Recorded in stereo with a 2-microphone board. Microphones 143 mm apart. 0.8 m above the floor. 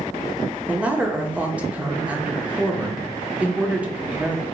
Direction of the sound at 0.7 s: 10° right (ahead or behind).